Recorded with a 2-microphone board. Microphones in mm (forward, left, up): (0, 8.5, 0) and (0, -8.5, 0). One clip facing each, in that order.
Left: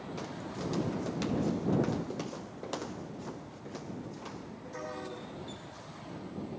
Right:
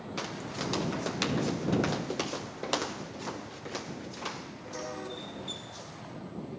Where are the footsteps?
50° right (ahead or behind); by 6.1 s 55° right (ahead or behind).